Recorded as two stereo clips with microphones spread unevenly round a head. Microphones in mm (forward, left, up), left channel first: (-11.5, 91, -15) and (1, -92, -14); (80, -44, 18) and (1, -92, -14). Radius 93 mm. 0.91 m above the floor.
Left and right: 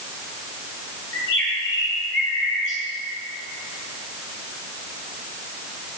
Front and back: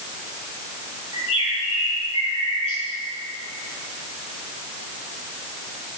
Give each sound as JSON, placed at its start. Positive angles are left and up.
{"t": 1.1, "sound": "a bird", "azimuth_deg": 75, "distance_m": 7.0}